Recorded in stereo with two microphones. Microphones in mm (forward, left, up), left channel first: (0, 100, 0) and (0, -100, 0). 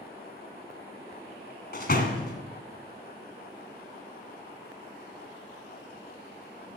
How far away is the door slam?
About 1.7 m.